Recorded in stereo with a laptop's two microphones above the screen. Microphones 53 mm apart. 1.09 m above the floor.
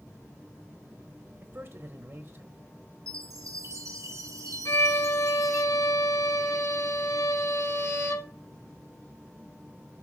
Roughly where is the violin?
Left.